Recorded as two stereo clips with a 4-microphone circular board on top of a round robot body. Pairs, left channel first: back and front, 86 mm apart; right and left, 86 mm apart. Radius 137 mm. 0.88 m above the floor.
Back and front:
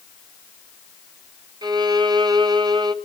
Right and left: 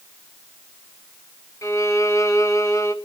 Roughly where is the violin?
Ahead right.